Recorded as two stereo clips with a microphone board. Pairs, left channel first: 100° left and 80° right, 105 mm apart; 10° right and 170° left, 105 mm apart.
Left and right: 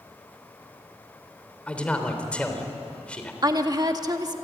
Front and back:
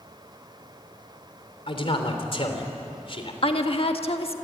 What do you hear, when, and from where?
1.7 s a man speaking: 20° left, 3.5 m
3.4 s a woman speaking: 30° right, 1.7 m